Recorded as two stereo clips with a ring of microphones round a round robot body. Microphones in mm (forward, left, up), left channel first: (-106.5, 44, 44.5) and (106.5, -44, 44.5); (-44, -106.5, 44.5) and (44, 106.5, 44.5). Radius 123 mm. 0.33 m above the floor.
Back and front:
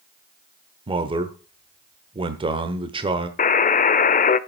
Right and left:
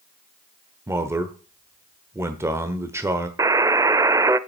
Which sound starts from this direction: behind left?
A buzzer, at 3.4 s.